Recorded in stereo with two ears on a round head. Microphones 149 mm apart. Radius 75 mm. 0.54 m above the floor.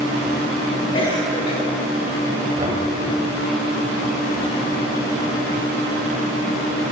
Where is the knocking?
45° right (ahead or behind), 2.5 m.